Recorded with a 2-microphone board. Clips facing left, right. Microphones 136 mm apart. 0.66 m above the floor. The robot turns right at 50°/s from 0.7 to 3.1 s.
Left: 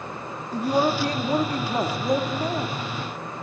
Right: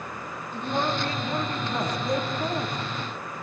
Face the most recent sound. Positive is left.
turn(degrees=-170)